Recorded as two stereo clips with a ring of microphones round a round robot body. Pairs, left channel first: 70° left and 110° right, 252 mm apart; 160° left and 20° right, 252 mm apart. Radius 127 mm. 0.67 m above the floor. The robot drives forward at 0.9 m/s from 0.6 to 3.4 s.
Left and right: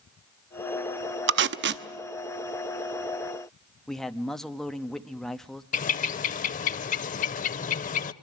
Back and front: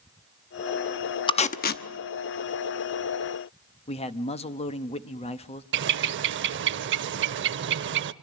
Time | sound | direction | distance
1.3 | tape being pulled | 135° right | 0.7 m
3.9 | a man speaking | 150° left | 0.8 m
5.7 | a bird | 15° left | 0.5 m